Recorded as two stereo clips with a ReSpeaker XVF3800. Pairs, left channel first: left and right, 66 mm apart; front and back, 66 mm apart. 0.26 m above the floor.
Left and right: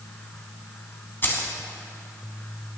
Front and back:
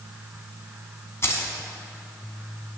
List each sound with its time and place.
1.2 s keys jangling: 40° left, 1.4 m